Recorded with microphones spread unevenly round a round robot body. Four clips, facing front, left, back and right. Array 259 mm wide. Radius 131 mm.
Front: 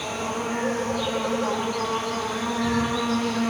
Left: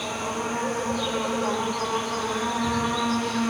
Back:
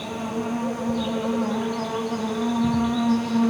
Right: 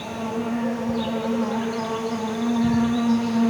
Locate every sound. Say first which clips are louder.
0.0 s an insect: right 2 dB, even; 140° right, 2 m